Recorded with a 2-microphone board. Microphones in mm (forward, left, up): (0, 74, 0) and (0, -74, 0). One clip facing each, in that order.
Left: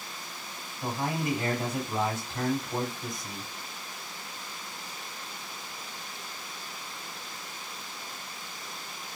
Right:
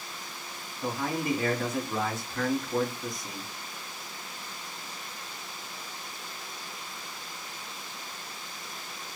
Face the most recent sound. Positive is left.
turn(degrees=25)  # may be behind; listen again after turning